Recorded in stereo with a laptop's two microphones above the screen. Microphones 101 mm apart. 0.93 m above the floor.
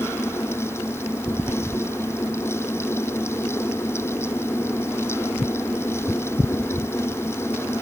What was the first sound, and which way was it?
A fan, 25° left (ahead or behind).